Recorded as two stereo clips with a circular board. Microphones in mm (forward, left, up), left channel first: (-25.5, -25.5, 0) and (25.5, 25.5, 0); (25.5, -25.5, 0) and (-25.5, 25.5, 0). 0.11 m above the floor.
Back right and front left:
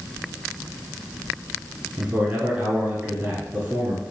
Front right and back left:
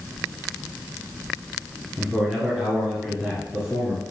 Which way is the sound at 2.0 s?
70° left.